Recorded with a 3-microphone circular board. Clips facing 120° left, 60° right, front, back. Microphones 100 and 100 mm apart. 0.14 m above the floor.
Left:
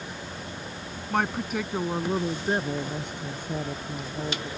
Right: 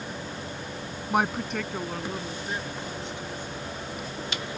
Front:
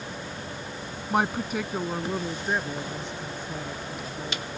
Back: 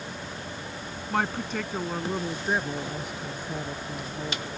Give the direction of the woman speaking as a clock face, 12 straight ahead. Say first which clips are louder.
Right 1 dB, front 3 dB; 1 o'clock.